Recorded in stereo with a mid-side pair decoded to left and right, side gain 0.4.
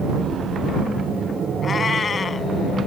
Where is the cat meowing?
45° left.